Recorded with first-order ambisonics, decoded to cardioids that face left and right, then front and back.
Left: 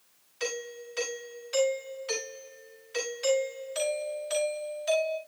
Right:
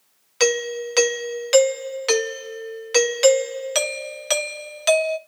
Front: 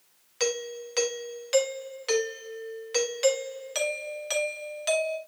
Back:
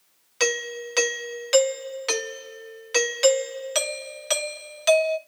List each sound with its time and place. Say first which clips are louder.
0.4 s a doorbell: right 14 dB, back 5 dB; 110° right, 1.1 m